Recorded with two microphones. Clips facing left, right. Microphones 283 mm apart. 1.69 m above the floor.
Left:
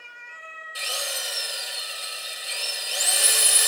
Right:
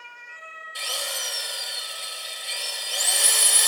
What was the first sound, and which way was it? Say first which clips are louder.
A drill: left 1 dB; 5° left (ahead or behind).